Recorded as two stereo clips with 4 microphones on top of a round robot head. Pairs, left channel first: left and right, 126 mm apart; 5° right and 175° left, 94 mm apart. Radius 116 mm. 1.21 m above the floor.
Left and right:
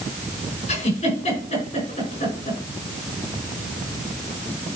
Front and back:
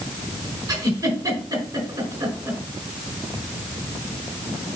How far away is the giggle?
About 4.5 m.